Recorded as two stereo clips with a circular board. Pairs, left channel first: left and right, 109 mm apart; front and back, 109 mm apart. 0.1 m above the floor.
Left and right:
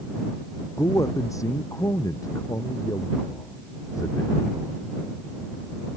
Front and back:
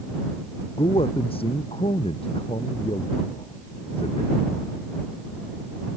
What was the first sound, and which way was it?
A man speaking, 30° left.